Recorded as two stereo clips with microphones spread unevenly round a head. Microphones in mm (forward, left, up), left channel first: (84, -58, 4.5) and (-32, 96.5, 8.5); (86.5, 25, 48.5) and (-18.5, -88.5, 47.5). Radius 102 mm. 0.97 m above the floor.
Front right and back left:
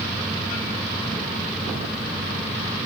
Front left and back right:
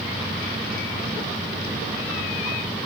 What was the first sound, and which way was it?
Only background noise.